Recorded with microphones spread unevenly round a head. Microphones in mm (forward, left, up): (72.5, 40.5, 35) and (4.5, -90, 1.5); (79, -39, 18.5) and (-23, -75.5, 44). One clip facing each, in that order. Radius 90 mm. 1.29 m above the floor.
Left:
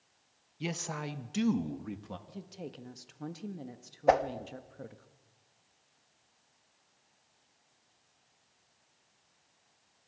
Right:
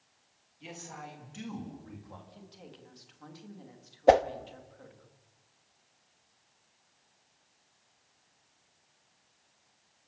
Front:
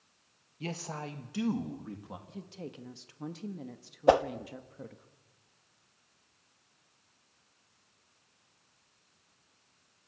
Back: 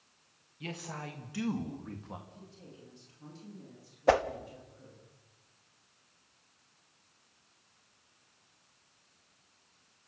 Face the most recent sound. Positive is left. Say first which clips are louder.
# right 4 dB, front 3 dB
turn(degrees=-55)